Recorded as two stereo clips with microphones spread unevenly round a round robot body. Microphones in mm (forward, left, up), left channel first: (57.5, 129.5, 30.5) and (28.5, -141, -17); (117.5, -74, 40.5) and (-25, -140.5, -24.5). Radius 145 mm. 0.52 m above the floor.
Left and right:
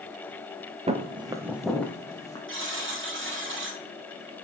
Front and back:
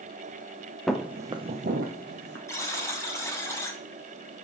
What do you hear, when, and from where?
0.9 s footsteps: 25° right, 0.6 m; by 2.4 s 155° left, 0.9 m
2.5 s a buzzer: 50° right, 2 m